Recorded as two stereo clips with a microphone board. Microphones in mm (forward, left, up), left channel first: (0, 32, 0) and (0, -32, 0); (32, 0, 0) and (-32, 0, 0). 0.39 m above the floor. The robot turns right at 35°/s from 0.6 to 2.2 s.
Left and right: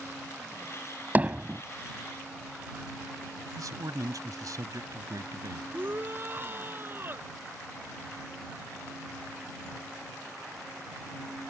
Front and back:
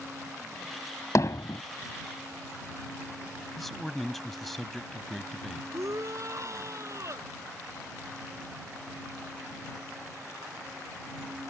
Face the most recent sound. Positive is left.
turn(degrees=-145)